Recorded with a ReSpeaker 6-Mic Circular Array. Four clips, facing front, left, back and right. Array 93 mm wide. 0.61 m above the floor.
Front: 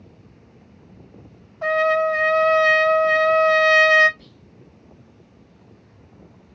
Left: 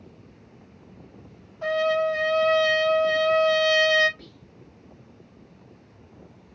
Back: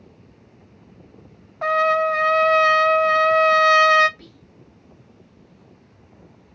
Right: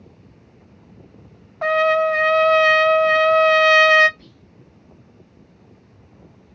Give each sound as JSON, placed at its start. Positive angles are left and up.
{"t": 1.6, "sound": "a trumpet", "azimuth_deg": -120, "distance_m": 0.5}
{"t": 4.2, "sound": "whispering", "azimuth_deg": 140, "distance_m": 1.6}